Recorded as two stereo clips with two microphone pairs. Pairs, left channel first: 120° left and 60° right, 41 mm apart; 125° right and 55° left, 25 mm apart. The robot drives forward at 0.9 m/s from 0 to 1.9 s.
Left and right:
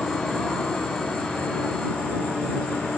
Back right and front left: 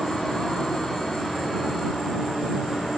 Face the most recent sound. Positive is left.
turn(degrees=-175)